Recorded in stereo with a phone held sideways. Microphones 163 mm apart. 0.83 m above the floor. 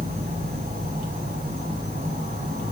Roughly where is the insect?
Right.